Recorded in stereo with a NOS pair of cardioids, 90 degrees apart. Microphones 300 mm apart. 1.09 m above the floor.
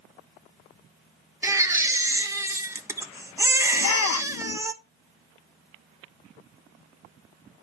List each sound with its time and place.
1.4 s a baby crying: 10° right, 1.0 m
3.7 s a shout: 60° left, 0.8 m